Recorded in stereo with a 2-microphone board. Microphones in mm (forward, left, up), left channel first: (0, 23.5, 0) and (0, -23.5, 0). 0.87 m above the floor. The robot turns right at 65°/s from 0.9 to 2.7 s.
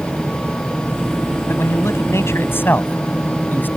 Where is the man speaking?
55° left; by 3.7 s 130° left.